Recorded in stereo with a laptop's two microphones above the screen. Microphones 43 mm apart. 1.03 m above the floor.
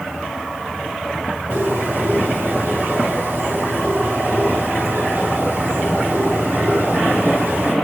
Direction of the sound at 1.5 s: 70° right (ahead or behind).